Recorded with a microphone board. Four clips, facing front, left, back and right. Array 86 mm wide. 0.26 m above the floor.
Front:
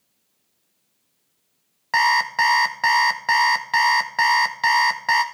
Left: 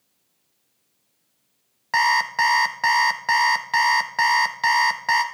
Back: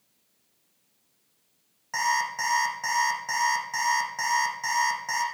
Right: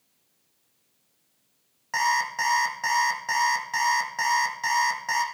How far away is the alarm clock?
About 1.2 m.